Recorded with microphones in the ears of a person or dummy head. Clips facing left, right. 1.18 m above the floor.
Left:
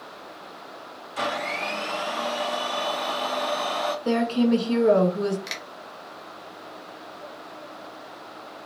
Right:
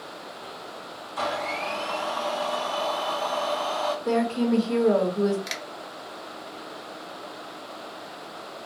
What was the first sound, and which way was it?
A blender, 35° left (ahead or behind).